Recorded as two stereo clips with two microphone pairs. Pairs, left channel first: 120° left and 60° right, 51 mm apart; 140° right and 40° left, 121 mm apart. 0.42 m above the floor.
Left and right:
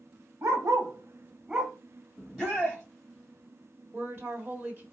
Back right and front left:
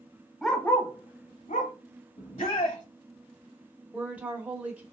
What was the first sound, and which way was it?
A dog barking, 50° right.